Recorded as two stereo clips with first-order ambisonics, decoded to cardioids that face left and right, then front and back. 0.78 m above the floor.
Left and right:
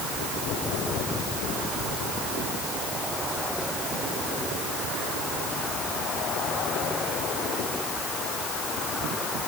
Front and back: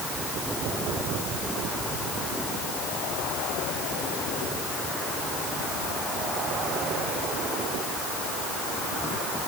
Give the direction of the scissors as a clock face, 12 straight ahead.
I don't hear scissors.